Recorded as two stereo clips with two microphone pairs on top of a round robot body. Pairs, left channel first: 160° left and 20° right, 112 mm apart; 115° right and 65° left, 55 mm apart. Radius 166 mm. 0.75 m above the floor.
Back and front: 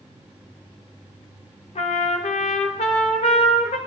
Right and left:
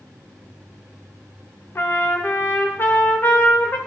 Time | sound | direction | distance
1.8 | a trumpet | 170° right | 1.1 m